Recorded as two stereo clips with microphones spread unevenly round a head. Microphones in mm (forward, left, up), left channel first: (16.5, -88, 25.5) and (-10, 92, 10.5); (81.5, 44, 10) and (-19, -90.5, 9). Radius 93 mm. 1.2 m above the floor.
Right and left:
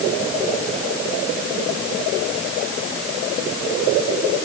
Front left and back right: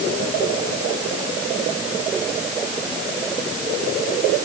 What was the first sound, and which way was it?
Only background noise.